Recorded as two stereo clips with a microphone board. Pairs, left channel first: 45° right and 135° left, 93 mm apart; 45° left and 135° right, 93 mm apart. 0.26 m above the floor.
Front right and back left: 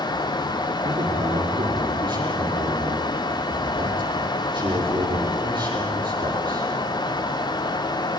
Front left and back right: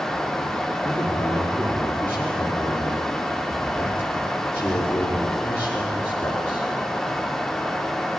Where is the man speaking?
110° left, 5 m.